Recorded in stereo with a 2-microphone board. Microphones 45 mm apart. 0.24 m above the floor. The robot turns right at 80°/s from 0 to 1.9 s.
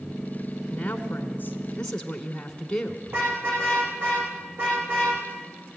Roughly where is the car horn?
Right.